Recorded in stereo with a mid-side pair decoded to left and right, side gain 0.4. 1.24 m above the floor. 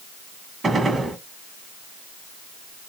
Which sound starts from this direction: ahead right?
A gunshot, at 0.6 s.